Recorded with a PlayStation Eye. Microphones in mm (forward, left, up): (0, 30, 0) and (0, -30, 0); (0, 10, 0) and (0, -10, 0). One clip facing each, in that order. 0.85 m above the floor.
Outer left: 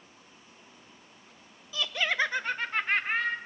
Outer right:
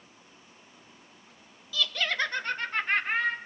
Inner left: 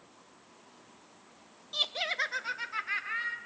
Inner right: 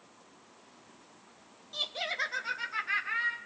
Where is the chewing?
No chewing in this recording.